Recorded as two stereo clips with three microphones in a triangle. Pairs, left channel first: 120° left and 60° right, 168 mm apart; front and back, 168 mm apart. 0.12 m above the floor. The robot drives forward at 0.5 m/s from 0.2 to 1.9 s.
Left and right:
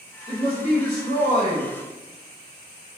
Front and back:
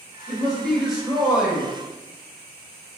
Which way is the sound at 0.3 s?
75° left.